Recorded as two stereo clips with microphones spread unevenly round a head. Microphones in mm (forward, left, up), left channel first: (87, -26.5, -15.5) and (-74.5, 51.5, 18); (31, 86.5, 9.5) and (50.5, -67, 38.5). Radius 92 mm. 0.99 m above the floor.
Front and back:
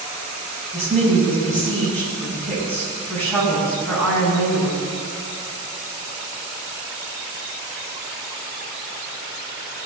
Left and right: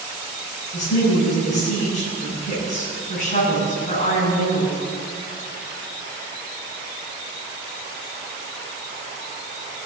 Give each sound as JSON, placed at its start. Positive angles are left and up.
{"t": 0.7, "sound": "a woman speaking", "azimuth_deg": 55, "distance_m": 6.0}